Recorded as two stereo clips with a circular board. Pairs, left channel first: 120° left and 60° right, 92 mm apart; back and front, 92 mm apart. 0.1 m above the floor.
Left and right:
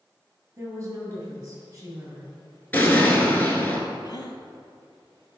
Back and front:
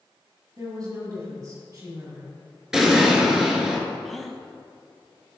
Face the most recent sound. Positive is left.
turn(degrees=90)